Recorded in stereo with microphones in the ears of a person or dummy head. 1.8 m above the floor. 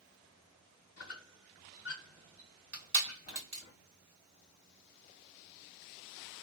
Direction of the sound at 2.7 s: 50° right (ahead or behind).